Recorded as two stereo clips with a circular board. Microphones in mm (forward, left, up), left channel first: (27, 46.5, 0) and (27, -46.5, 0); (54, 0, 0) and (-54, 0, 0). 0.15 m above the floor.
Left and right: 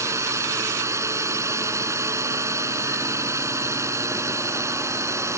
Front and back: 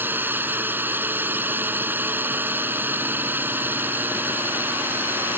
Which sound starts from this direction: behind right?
A drone, at 0.0 s.